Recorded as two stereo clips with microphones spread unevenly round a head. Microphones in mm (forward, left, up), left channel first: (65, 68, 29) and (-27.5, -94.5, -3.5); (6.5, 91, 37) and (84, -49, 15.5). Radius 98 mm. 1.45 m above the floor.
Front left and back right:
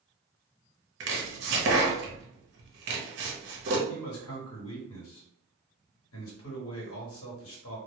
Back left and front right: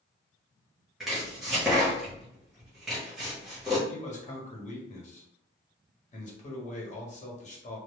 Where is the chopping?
155° right, 0.7 m.